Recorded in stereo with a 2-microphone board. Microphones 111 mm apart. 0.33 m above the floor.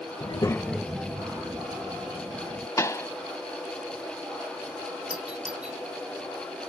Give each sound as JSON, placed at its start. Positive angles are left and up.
{"t": 0.2, "sound": "a child speaking", "side_deg": 50}
{"t": 2.8, "sound": "a pop", "side_deg": 30}
{"t": 5.1, "sound": "a doorbell", "side_deg": -10}